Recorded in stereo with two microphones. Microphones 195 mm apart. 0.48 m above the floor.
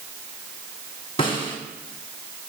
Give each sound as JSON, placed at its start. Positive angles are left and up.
{"t": 1.2, "sound": "a snare drum", "side_deg": 25, "distance_m": 2.0}